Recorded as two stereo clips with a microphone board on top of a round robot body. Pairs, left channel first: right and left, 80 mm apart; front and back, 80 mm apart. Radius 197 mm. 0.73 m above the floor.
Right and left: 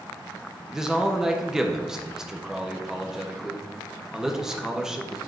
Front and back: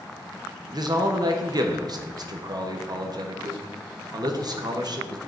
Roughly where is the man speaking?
Behind.